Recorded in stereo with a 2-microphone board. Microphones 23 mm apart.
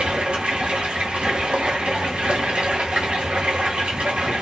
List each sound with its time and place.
0.0 s running water: 70° right (ahead or behind), 1.2 m